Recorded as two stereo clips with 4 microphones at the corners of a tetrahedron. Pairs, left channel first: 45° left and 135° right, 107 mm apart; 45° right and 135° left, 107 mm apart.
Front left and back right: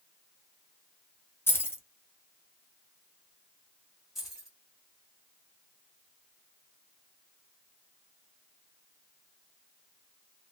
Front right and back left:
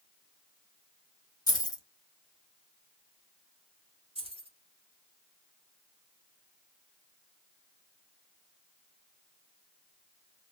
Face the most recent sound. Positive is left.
turn(degrees=135)